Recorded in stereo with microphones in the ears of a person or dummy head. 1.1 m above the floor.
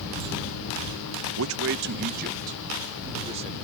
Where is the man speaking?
65° right (ahead or behind); by 3.5 s 30° right (ahead or behind).